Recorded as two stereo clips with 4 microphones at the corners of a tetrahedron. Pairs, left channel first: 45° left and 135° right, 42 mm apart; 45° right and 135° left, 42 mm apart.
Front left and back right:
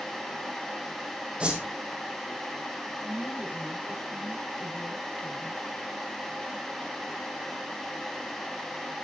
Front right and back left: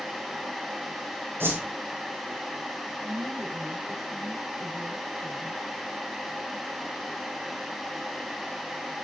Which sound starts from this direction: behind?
A whoosh, at 1.4 s.